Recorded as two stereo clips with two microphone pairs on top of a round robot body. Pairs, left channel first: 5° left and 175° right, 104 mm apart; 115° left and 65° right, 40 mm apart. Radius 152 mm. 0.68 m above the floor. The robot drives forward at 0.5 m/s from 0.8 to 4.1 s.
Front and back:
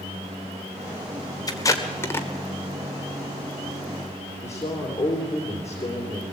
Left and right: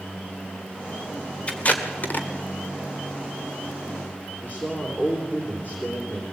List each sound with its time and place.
1.5 s tape being pulled: 60° left, 1.6 m; by 2.3 s 75° left, 1.4 m
4.4 s a man speaking: 65° left, 2.5 m